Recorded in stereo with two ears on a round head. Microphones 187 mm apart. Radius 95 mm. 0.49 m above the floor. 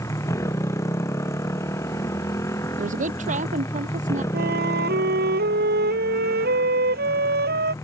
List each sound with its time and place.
0.0 s a motorcycle: 15° left (ahead or behind)
2.8 s a woman speaking: 40° right (ahead or behind)
4.3 s a flute: 55° right (ahead or behind)